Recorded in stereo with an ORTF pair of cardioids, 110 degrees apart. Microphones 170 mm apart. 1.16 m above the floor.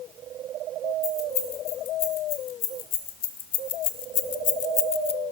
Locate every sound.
1.0 s keys jangling: 70° left, 2.5 m; by 5.2 s 30° left, 0.5 m